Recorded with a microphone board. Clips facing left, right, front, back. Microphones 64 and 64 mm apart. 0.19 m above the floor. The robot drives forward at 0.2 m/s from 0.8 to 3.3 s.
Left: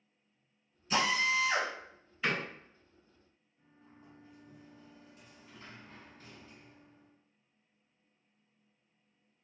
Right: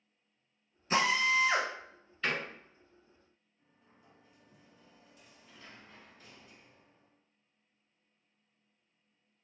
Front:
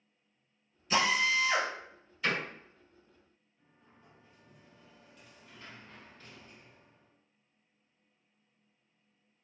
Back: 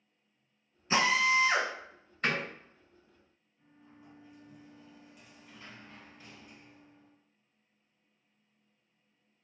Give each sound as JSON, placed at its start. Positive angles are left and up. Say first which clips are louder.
{"t": 0.9, "sound": "a drill", "louder": "right 2 dB, back 2 dB", "azimuth_deg": -130, "distance_m": 0.7}
{"t": 2.2, "sound": "a door slam", "louder": "left 1 dB, back 1 dB", "azimuth_deg": 170, "distance_m": 1.6}
{"t": 3.6, "sound": "a sliding door", "louder": "left 7 dB, back 6 dB", "azimuth_deg": 105, "distance_m": 0.9}